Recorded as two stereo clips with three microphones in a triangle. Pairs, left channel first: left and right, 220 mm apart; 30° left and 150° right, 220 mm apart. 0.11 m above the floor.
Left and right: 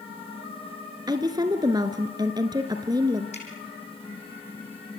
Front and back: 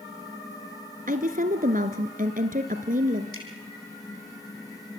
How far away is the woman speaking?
About 1.6 m.